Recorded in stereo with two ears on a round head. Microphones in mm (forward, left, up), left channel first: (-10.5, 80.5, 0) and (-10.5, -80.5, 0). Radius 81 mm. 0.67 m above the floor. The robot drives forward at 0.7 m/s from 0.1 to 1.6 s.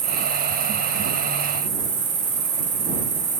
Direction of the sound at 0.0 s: 35° right (ahead or behind).